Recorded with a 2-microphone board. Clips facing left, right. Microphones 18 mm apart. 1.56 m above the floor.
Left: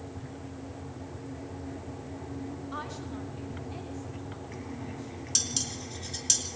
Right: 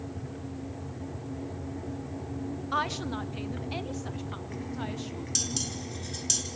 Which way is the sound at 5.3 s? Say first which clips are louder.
Left 1 dB; 15° left (ahead or behind).